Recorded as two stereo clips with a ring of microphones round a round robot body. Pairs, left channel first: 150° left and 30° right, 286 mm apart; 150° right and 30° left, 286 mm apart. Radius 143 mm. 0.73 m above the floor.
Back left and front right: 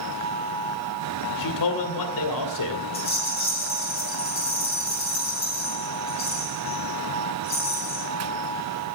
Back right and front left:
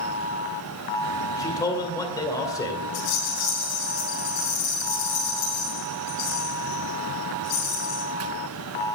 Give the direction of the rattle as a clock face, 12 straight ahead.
5 o'clock.